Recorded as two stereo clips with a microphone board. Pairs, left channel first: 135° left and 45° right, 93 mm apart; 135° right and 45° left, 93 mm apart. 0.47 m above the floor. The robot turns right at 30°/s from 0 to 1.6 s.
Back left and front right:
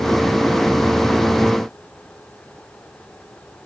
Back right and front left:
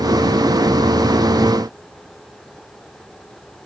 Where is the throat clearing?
No throat clearing in this recording.